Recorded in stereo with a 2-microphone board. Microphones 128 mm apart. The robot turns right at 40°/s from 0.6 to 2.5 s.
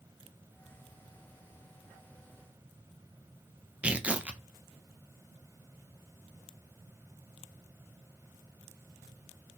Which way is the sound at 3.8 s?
10° right (ahead or behind).